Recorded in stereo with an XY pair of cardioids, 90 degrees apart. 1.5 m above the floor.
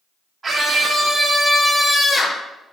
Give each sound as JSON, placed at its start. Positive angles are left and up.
{"t": 0.4, "sound": "a scream", "azimuth_deg": -25, "distance_m": 1.0}